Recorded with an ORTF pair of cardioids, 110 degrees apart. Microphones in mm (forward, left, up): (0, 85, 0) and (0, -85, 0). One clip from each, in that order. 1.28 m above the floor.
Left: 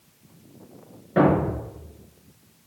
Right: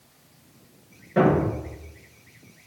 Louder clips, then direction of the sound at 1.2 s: Left 1 dB; 20° left.